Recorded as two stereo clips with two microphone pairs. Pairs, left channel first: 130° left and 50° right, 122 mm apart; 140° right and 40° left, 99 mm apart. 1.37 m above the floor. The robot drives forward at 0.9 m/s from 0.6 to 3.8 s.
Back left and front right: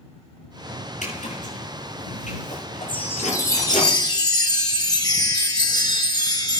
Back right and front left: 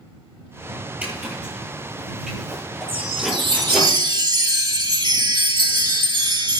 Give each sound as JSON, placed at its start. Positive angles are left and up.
{"t": 1.0, "sound": "a zipper", "azimuth_deg": 115, "distance_m": 10.0}
{"t": 2.9, "sound": "a chime", "azimuth_deg": 55, "distance_m": 2.0}